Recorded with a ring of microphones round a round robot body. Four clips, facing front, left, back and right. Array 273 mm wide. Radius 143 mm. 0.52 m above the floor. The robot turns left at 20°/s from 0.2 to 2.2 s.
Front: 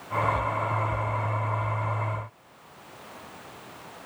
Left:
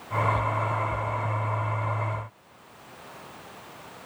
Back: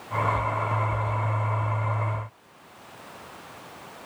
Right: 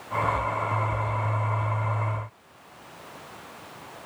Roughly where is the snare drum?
I don't hear a snare drum.